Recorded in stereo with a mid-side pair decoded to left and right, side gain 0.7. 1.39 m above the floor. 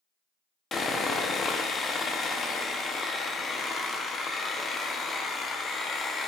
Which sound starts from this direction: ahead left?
Sawing, at 0.7 s.